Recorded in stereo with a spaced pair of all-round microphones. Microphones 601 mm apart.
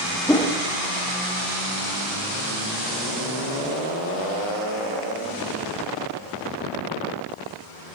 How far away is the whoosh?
About 0.9 m.